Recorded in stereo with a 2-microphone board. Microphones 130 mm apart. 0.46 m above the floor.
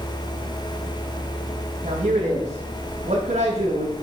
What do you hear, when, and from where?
1.8 s a man speaking: 65° right (ahead or behind), 2.5 m